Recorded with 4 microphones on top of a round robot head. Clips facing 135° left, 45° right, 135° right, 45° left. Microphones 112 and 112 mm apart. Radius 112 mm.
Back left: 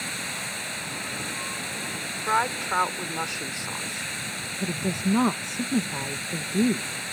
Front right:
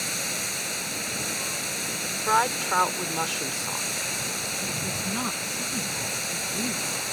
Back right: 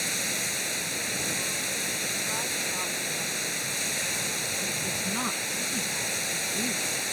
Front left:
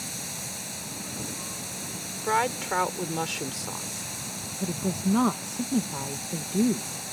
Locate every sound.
0.0 s running water: 105° right
2.2 s a woman speaking: 35° left
4.6 s a woman speaking: 95° left